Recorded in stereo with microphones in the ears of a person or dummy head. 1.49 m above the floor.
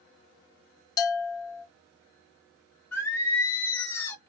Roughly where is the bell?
Left.